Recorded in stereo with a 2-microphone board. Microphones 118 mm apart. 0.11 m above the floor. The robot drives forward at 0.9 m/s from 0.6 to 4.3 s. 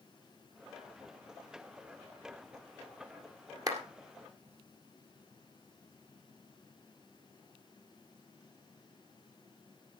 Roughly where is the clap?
Right.